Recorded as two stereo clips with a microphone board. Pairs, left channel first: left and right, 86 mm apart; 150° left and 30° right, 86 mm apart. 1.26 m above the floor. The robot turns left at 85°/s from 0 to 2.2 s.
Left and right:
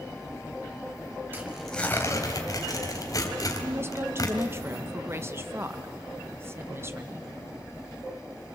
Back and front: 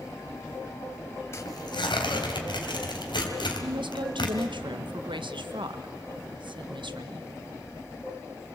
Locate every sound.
1.3 s tearing paper: 155° right, 3 m; by 4.5 s 135° left, 3 m
3.6 s a woman speaking: 30° right, 1.6 m